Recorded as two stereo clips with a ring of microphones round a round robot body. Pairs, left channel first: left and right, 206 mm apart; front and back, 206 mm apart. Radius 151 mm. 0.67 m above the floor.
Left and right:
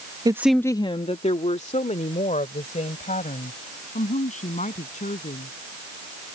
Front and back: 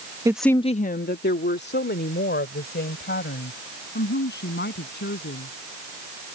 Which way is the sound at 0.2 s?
130° right.